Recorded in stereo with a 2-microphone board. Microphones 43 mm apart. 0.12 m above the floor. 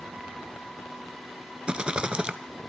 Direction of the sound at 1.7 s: 25° right (ahead or behind).